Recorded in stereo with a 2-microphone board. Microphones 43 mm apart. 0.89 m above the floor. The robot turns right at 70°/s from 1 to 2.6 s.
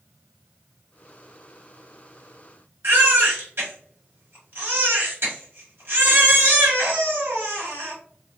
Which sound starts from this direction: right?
A baby crying, at 2.8 s.